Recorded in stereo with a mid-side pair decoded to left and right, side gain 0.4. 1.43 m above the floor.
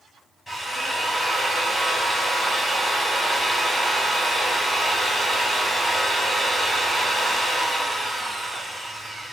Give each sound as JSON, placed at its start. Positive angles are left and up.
{"t": 0.5, "sound": "a drill", "azimuth_deg": 15, "distance_m": 6.5}